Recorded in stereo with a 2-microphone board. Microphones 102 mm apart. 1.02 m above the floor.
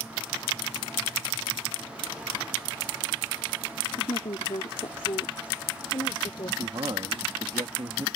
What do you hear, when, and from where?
4.0 s a woman speaking: 70° left (ahead or behind); by 6.5 s 50° left (ahead or behind)
6.6 s a man speaking: 60° right (ahead or behind)